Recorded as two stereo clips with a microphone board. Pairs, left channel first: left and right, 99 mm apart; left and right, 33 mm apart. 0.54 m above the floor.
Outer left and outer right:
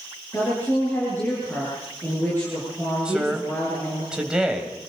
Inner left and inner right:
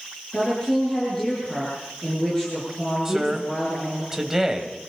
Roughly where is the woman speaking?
Left.